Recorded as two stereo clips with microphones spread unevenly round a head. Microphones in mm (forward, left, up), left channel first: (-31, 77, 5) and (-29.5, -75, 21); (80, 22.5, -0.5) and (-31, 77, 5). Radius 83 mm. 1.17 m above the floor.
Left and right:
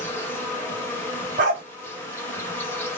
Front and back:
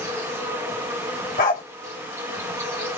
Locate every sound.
0.0 s an insect: 160° left, 1.0 m
1.4 s a dog barking: 45° right, 1.8 m